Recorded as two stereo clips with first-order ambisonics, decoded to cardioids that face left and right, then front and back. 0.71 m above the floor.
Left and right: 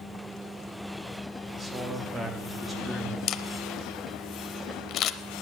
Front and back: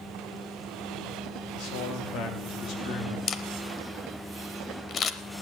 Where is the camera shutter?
55° left, 0.6 m.